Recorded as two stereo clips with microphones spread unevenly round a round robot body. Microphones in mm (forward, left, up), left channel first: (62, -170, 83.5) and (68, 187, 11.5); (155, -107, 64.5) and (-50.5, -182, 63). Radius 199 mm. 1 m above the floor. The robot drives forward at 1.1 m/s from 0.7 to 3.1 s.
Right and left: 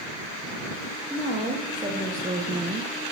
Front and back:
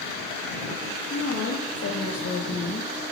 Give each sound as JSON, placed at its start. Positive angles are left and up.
{"t": 1.1, "sound": "a woman speaking", "azimuth_deg": 10, "distance_m": 2.0}